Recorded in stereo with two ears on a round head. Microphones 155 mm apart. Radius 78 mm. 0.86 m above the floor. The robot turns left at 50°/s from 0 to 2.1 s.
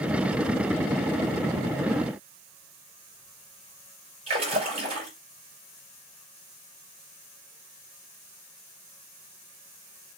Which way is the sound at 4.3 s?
35° right (ahead or behind).